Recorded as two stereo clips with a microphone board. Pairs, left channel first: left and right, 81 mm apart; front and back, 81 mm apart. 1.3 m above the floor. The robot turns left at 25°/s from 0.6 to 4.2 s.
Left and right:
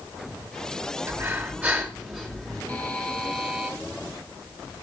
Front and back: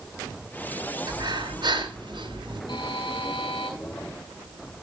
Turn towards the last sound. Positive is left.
turn(degrees=-15)